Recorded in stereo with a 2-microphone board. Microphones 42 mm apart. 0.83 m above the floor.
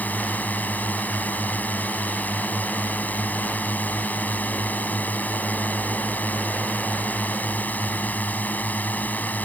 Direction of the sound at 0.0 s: 45° left (ahead or behind).